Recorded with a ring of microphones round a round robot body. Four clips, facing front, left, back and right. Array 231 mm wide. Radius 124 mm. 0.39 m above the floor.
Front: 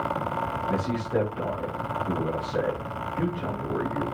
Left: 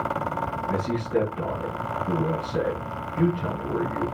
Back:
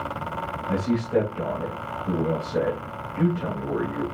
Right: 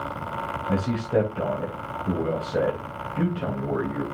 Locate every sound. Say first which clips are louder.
0.7 s a man speaking: right 2 dB, back 6 dB; 100° right, 3 m